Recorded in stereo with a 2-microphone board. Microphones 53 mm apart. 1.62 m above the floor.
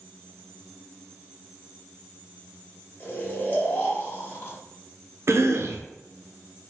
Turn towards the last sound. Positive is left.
turn(degrees=-55)  # may be behind; listen again after turning